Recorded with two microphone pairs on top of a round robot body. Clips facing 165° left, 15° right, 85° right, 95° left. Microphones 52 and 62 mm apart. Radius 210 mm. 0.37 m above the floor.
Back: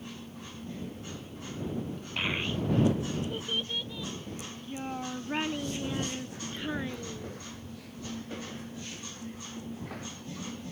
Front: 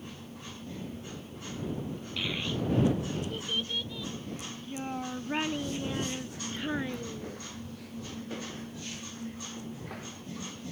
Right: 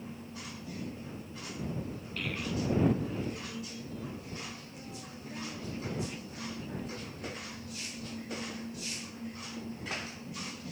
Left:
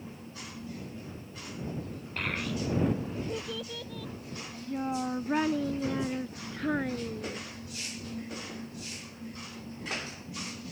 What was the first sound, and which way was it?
A child speaking, 125° left.